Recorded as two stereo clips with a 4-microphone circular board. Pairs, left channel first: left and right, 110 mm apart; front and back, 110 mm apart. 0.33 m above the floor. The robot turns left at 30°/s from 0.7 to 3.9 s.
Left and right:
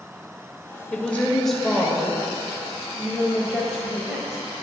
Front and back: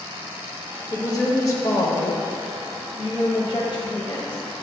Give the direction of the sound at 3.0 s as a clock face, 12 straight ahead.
11 o'clock.